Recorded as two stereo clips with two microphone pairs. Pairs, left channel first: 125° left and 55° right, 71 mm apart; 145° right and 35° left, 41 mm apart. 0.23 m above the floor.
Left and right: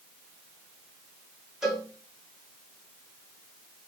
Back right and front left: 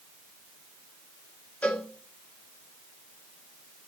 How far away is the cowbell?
About 1.4 m.